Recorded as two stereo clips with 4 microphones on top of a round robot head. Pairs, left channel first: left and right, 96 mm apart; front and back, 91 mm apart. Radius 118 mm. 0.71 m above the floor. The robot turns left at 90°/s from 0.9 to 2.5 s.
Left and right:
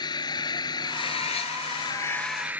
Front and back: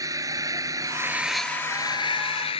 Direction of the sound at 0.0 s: 130° left.